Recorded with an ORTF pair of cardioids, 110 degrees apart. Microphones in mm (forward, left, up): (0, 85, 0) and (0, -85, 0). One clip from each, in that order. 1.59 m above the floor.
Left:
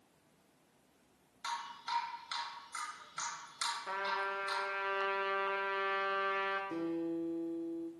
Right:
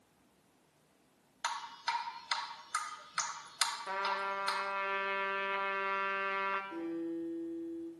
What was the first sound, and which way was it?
Dripping, 55° right.